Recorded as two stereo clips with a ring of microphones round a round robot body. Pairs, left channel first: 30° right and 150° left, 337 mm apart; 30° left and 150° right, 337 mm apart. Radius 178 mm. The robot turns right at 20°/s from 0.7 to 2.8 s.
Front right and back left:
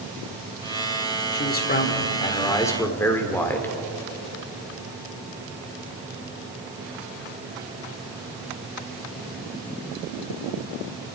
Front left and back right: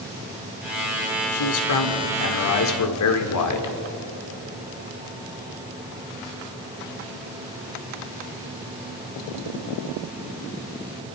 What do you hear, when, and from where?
1.3 s a man speaking: 25° left, 2 m; by 3.8 s 55° left, 2 m